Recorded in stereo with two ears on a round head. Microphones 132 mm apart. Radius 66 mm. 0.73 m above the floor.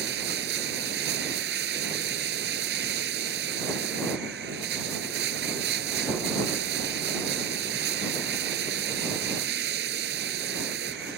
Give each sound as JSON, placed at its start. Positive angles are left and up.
{"t": 0.0, "sound": "running water", "side_deg": -85}